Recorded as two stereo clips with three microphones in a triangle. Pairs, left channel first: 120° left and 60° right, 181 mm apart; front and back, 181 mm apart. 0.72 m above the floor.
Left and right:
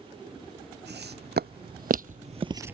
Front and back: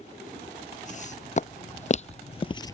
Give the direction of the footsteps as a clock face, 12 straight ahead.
2 o'clock.